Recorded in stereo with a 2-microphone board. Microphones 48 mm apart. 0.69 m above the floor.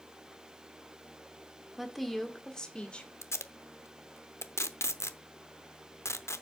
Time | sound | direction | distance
1.8 | a woman speaking | 5° right (ahead or behind) | 1.4 m
3.2 | tape being pulled | 80° left | 0.7 m